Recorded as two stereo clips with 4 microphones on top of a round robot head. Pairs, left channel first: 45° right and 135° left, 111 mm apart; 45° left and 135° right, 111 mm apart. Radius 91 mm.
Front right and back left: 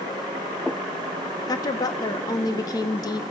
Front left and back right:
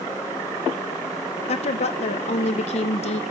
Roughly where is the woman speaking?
Ahead.